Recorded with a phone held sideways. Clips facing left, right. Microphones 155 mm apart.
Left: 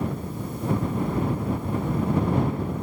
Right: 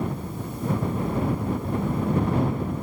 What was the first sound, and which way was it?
Only background noise.